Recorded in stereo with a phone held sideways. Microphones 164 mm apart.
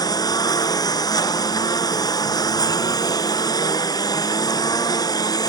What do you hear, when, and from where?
0.0 s a lawn mower: 25° left (ahead or behind)